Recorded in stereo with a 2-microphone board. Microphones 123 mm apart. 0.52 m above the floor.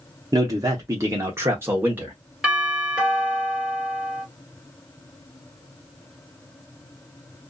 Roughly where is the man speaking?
Right.